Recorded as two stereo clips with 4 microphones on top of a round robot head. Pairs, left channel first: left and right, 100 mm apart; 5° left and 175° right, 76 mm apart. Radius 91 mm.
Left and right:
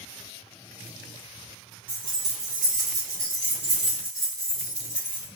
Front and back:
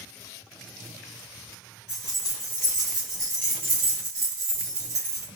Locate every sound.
1.9 s keys jangling: 55° right, 1.0 m; by 5.3 s 145° left, 1.2 m